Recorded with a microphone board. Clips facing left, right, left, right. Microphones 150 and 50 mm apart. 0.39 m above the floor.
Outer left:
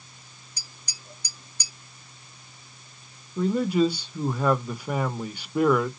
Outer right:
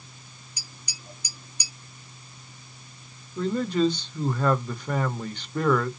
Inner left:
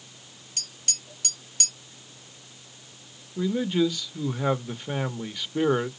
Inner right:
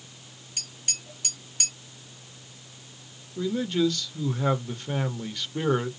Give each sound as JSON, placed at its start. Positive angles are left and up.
{"t": 0.6, "sound": "tapping", "side_deg": -10, "distance_m": 2.5}
{"t": 3.4, "sound": "a man speaking", "side_deg": 10, "distance_m": 0.8}